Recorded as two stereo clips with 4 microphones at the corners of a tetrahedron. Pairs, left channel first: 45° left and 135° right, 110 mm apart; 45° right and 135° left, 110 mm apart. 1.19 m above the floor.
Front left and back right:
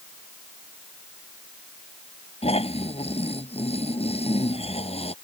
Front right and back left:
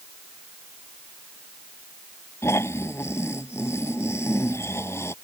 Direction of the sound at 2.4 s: 20° left.